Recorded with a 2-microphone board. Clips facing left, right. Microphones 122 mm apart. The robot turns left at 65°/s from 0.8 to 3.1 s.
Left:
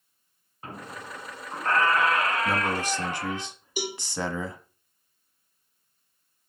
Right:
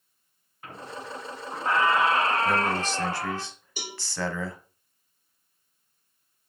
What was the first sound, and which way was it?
A squeak, 45° left.